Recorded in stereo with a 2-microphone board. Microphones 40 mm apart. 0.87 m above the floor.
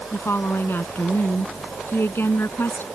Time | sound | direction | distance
0.1 | a woman speaking | 80° left | ?